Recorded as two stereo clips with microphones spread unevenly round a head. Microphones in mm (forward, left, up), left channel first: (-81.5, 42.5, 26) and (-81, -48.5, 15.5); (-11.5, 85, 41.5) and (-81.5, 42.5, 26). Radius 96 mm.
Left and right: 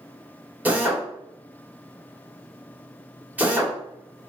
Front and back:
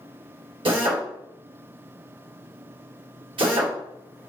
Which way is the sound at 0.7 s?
165° right.